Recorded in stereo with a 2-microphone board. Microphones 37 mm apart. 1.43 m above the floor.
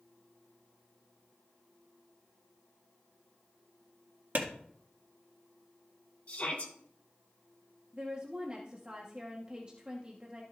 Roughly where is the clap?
Right.